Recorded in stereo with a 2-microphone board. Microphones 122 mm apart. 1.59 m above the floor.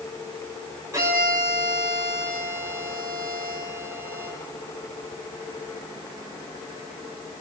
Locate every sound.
0.9 s a violin: 30° right (ahead or behind), 7.5 m